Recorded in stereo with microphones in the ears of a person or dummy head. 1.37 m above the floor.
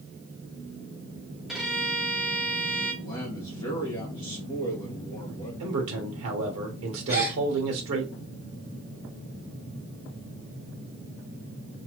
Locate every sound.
1.5 s a violin: centre (ahead or behind), 1.1 m
3.0 s a man speaking: 20° left (ahead or behind), 1.8 m
5.6 s a man speaking: 75° right (ahead or behind), 1.1 m
7.1 s a gasp: 40° right (ahead or behind), 2.5 m